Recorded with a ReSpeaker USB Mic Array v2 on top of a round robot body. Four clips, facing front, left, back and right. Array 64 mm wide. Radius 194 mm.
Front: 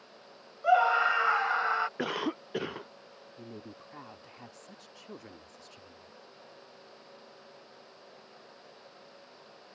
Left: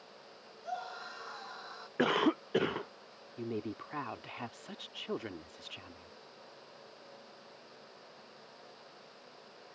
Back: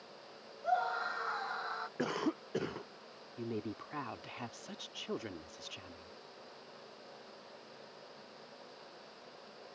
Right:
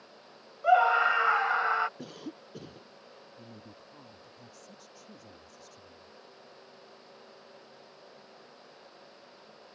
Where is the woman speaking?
110° left.